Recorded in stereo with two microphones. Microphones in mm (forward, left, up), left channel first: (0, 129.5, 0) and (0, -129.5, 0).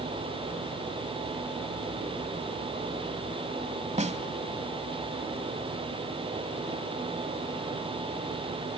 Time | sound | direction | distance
4.0 | a snare drum | 25° right (ahead or behind) | 1.1 m